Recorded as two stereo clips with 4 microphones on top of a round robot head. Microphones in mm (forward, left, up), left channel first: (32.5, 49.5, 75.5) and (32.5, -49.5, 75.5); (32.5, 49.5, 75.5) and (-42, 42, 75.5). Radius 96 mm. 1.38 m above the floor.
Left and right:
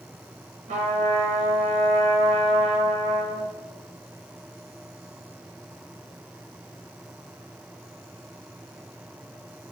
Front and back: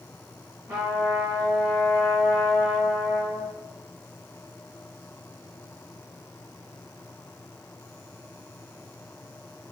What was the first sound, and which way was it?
A trumpet, 100° right.